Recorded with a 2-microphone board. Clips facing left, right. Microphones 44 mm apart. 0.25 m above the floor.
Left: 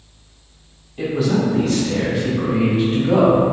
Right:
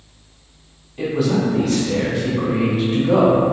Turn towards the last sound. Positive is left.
turn(degrees=0)  # may be behind; listen again after turning